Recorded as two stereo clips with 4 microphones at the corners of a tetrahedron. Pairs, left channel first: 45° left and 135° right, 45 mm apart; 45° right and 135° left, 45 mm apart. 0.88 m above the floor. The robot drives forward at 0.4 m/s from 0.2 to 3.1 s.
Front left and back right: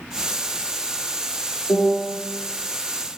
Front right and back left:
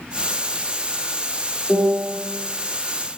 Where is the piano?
70° left, 1.1 m; by 2.2 s 85° left, 1.0 m.